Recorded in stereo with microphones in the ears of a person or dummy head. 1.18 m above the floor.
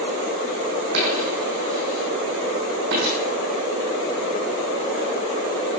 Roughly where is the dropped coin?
Right.